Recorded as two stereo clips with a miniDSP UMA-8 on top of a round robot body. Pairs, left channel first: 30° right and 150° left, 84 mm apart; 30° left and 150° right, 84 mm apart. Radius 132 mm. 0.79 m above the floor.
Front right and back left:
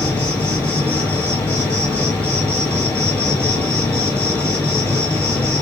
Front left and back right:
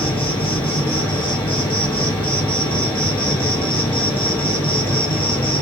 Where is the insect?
45° left, 1.2 m.